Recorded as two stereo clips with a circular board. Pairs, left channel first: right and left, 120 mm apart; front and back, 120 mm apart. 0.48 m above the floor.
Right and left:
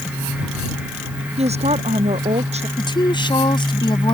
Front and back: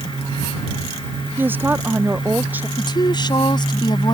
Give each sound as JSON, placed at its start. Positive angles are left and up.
{"t": 1.4, "sound": "a woman speaking", "azimuth_deg": 110}
{"t": 2.8, "sound": "a woman speaking", "azimuth_deg": -45}